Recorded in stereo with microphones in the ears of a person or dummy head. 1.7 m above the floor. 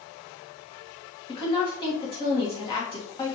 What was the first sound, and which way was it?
A woman speaking, 25° left (ahead or behind).